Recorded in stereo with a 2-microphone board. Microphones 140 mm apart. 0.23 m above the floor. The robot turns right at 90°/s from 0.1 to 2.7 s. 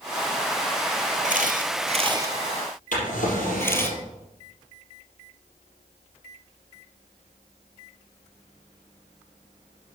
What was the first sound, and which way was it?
A camera shutter, 65° right (ahead or behind).